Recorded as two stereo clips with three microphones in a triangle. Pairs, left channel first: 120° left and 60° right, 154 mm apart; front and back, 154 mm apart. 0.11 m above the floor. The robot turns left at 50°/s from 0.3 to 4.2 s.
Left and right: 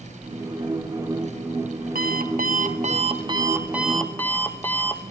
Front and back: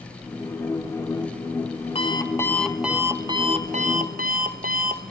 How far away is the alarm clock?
About 1.4 m.